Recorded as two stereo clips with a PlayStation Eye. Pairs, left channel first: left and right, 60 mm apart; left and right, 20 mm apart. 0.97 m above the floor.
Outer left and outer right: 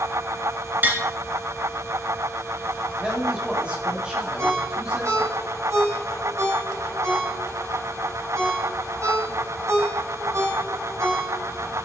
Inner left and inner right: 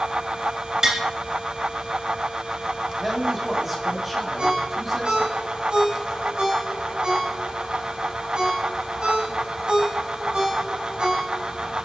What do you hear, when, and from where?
0.8 s tapping: 35° right (ahead or behind), 2.5 m
3.0 s a man speaking: 20° right (ahead or behind), 2.5 m
4.4 s a ringtone: 55° right (ahead or behind), 5.5 m